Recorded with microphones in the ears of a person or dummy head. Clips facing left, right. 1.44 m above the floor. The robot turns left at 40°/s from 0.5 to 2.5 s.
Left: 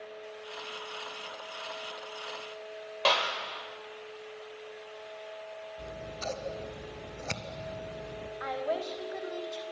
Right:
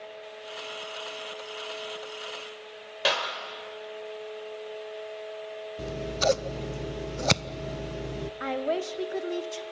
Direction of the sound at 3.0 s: 10° right (ahead or behind).